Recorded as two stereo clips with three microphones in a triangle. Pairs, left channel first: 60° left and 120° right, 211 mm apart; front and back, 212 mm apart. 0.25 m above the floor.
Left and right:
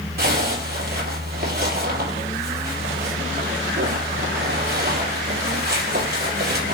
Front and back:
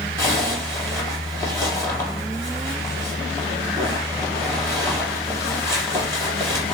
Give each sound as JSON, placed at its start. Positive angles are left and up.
{"t": 0.2, "sound": "a zipper", "azimuth_deg": -80, "distance_m": 2.5}